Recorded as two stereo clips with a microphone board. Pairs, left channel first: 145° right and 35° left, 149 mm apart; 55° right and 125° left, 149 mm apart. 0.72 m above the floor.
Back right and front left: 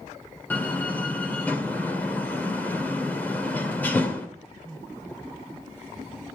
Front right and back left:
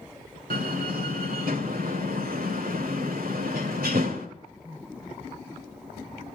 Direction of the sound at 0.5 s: 135° left.